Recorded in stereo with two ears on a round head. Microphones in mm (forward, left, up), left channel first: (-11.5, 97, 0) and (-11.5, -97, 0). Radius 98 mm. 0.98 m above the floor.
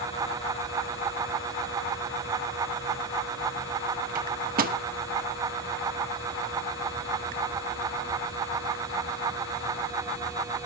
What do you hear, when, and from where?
4.2 s a microwave: 45° right (ahead or behind), 1.1 m